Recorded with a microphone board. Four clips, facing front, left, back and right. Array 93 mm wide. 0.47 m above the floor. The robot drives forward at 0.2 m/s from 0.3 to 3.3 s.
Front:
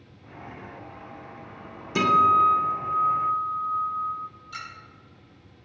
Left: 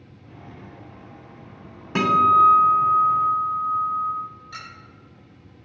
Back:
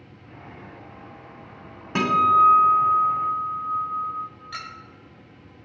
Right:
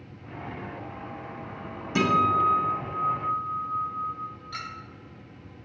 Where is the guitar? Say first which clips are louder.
Left 6 dB, back 1 dB; 135° left, 1.0 m; by 4.1 s 145° left, 1.2 m.